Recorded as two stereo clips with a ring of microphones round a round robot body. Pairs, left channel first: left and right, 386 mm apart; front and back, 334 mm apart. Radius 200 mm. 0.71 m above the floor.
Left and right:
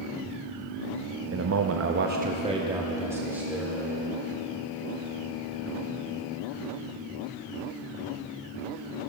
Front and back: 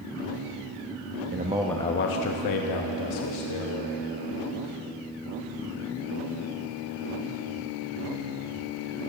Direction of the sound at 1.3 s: 135° right.